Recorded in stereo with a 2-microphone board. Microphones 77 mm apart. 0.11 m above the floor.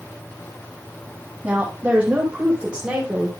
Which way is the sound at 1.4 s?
20° right (ahead or behind).